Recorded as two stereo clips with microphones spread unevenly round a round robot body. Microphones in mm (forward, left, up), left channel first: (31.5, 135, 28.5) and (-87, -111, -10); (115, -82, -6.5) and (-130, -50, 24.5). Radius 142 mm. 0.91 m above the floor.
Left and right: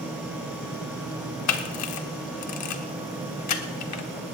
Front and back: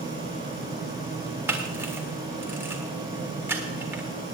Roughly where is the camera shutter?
Left.